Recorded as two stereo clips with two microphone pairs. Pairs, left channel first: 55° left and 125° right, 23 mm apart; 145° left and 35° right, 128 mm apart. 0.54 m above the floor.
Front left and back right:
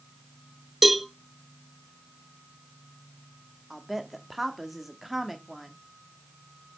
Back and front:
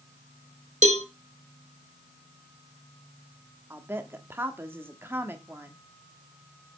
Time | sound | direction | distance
0.8 | a cowbell | 40° right | 0.9 m
3.7 | a woman speaking | 65° right | 1.0 m